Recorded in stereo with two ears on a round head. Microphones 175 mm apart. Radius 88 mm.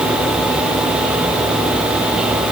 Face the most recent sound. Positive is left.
No sound to turn to.